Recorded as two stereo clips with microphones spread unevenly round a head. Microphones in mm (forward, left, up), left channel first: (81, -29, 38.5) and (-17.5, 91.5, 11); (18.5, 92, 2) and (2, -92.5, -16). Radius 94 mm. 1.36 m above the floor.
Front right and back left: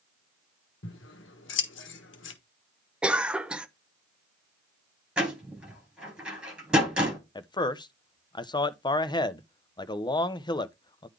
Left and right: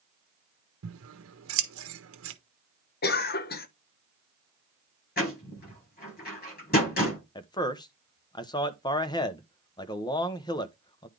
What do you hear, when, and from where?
0.8 s scissors: 80° right, 1.2 m
3.0 s a cough: 45° left, 1.0 m
5.2 s a door slam: 45° left, 7 m
7.3 s a man speaking: 15° left, 0.9 m